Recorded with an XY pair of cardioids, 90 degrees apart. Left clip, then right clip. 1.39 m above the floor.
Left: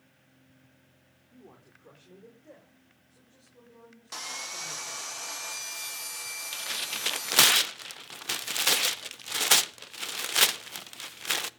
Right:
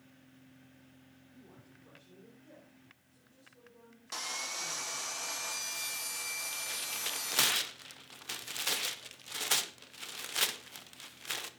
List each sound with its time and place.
1.3 s a man speaking: 60° left, 4 m; by 5.1 s 75° left, 6.5 m
4.1 s sawing: 10° left, 1.2 m
6.5 s tearing paper: 65° left, 0.6 m